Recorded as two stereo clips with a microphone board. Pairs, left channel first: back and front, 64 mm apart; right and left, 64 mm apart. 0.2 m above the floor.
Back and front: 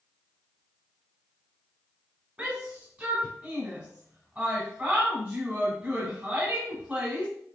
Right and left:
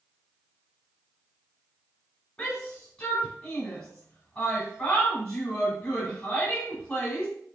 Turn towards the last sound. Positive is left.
turn(degrees=-30)